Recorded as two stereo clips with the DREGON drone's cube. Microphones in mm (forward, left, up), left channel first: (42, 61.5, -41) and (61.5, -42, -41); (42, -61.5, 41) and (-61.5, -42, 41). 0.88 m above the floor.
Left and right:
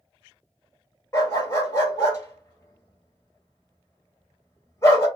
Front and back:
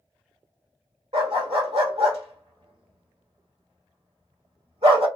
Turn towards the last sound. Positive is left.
turn(degrees=165)